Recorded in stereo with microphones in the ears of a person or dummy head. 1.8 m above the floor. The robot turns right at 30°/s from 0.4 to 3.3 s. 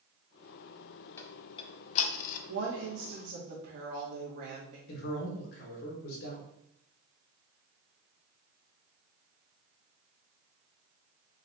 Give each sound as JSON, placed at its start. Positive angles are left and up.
{"t": 1.2, "sound": "ticking", "side_deg": 20, "distance_m": 0.6}
{"t": 2.5, "sound": "a woman speaking", "side_deg": -80, "distance_m": 1.1}
{"t": 4.9, "sound": "a man speaking", "side_deg": 65, "distance_m": 1.5}